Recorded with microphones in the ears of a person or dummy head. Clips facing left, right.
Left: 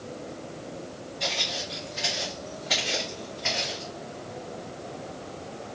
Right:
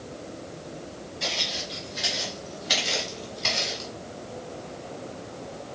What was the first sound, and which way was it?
Footsteps, 10° left (ahead or behind).